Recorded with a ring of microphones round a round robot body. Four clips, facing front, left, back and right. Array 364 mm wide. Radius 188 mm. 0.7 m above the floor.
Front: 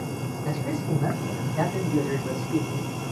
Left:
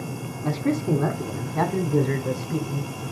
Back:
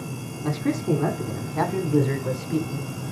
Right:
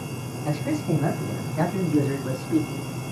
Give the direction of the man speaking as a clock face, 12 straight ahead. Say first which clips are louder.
Left 2 dB, back 6 dB; 7 o'clock.